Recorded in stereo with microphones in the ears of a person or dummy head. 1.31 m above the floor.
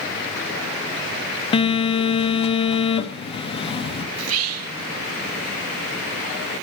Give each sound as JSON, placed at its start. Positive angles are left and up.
{"t": 1.5, "sound": "a phone buzzing", "side_deg": 25, "distance_m": 1.0}
{"t": 4.2, "sound": "whispering", "side_deg": -70, "distance_m": 0.9}